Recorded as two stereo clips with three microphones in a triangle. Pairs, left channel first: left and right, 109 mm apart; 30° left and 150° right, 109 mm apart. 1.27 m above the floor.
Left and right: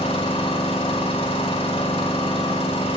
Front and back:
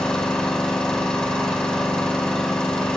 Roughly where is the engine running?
Behind left.